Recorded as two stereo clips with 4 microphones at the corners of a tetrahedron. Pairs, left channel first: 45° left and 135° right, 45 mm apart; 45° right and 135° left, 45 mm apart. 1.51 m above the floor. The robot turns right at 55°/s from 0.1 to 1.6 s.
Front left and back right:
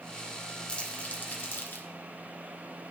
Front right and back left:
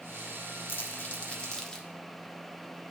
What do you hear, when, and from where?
0.7 s crumpling: 25° right, 1.7 m; by 1.9 s 25° left, 1.7 m